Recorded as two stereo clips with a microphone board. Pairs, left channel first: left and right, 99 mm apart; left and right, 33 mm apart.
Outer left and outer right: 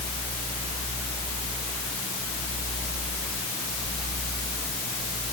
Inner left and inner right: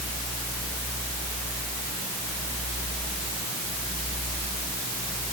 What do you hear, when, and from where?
Only background noise.